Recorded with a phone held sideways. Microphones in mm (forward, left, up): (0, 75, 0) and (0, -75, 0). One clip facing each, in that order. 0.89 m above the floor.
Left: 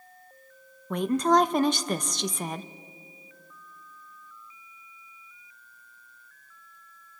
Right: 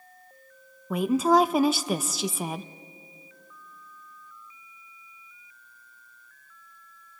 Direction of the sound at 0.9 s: 5° right (ahead or behind).